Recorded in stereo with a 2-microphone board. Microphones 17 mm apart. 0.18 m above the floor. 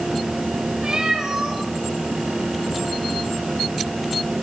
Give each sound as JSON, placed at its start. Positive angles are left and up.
{"t": 0.8, "sound": "a cat meowing", "side_deg": -50, "distance_m": 6.0}